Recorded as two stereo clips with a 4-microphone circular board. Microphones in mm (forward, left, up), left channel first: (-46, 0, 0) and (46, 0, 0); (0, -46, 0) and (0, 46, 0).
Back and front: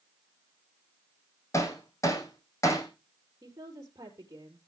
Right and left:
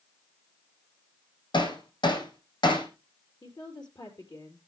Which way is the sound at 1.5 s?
125° right.